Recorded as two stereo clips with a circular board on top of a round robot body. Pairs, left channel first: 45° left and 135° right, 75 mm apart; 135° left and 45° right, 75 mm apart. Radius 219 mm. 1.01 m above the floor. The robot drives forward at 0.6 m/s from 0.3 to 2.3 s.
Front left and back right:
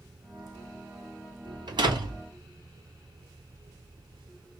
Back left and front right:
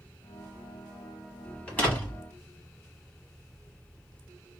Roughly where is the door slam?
Behind right.